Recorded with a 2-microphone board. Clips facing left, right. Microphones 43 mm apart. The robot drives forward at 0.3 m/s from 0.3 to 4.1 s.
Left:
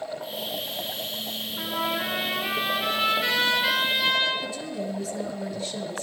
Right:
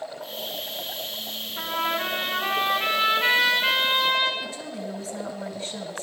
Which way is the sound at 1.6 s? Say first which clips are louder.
Right 2 dB; 50° right (ahead or behind).